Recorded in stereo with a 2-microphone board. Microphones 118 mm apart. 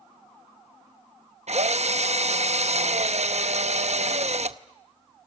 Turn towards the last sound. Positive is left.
turn(degrees=-65)  # may be behind; listen again after turning